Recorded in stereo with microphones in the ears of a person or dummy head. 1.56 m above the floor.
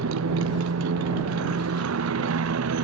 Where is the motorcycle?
80° right.